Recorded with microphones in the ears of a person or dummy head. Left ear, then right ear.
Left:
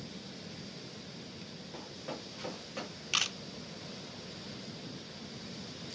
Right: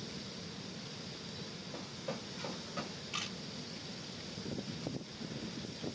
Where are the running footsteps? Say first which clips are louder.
Left 1 dB; 10° left (ahead or behind), 2.5 m; by 3.0 s 30° left (ahead or behind), 3 m.